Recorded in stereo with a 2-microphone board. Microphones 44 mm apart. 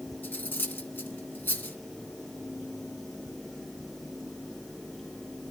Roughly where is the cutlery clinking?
Left.